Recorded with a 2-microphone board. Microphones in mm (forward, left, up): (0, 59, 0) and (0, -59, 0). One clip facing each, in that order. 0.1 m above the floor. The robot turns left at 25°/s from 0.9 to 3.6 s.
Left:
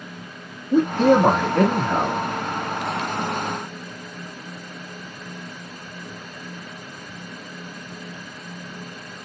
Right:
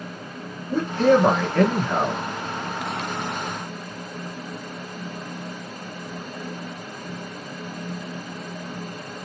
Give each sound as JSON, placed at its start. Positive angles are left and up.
{"t": 0.7, "sound": "a man speaking", "azimuth_deg": 35, "distance_m": 1.5}